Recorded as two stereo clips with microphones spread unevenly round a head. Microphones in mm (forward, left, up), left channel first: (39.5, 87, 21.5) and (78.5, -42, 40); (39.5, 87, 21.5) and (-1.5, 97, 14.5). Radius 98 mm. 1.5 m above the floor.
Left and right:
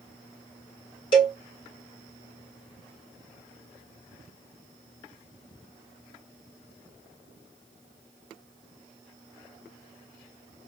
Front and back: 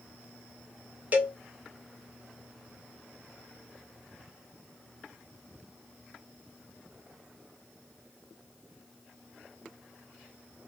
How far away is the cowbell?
About 1.1 m.